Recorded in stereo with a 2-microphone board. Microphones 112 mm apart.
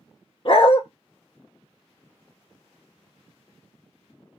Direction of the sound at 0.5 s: 50° left (ahead or behind).